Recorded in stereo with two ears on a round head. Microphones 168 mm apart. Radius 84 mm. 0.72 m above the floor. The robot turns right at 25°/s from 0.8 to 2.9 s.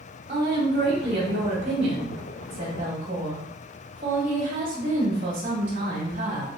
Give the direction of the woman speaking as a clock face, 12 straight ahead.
4 o'clock.